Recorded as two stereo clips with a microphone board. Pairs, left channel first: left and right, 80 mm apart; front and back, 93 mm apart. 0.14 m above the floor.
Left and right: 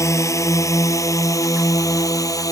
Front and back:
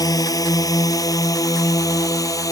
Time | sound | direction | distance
0.0 | a drone | 45° left | ?